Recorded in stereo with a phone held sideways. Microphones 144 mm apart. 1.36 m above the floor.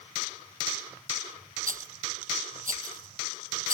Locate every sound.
1.7 s a rattle: 65° right (ahead or behind)